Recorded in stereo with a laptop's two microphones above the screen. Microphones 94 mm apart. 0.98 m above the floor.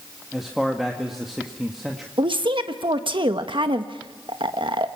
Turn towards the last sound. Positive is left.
turn(degrees=-60)  # may be behind; listen again after turning